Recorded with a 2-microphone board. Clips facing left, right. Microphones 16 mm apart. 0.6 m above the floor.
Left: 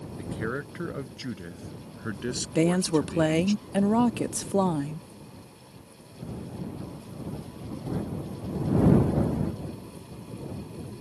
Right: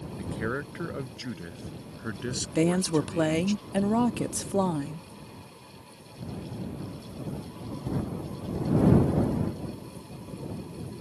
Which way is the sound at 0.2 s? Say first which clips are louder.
Even; 5° right (ahead or behind).